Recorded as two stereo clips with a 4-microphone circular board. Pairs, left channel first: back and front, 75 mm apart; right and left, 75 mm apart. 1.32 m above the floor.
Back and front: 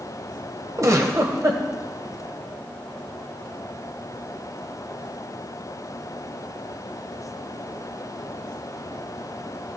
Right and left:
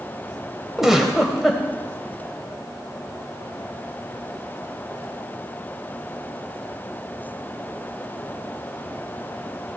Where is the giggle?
10° left, 1.4 m.